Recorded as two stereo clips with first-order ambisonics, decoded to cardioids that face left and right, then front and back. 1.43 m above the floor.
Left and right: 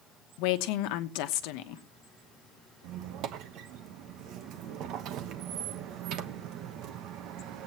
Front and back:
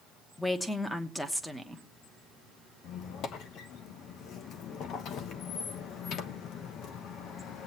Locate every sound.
0.4 s a woman speaking: 85° left, 1.1 m
2.8 s a squeak: 50° right, 1.0 m